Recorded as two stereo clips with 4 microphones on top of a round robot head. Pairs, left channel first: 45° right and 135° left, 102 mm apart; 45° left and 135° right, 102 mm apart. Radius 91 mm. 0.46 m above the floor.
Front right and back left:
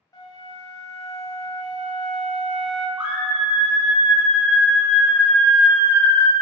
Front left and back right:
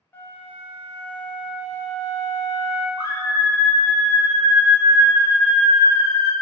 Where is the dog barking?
I don't hear a dog barking.